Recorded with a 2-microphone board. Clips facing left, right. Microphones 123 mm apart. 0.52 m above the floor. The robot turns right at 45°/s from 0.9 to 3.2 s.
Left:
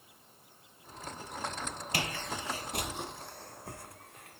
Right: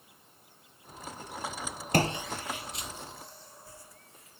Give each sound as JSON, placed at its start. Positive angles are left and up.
{"t": 1.9, "sound": "footsteps", "side_deg": -45}